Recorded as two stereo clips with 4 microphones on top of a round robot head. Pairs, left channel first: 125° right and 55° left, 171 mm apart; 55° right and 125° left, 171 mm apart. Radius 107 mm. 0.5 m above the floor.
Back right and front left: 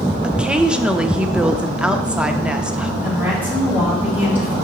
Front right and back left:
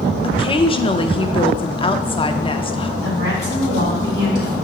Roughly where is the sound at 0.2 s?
Ahead right.